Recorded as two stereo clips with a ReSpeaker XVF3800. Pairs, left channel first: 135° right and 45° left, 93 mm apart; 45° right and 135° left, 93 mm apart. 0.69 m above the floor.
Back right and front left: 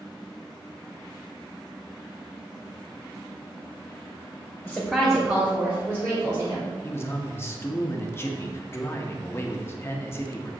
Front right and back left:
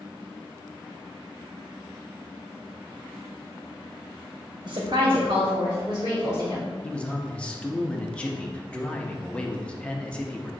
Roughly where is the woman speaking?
Behind left.